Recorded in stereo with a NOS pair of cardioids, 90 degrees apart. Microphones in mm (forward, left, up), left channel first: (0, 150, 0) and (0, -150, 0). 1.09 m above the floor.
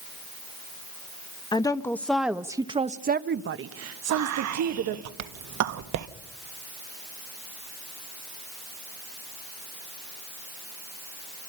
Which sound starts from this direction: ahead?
A woman speaking, at 1.5 s.